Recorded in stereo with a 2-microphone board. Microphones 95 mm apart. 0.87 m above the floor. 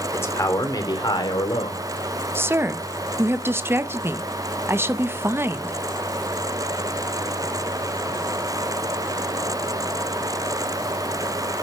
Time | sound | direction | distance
0.1 | a man speaking | 25° left (ahead or behind) | 2 m
2.4 | a woman speaking | 25° right (ahead or behind) | 0.7 m